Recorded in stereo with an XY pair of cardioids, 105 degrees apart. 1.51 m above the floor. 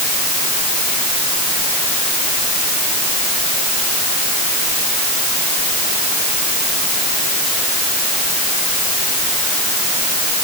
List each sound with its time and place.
Only background noise.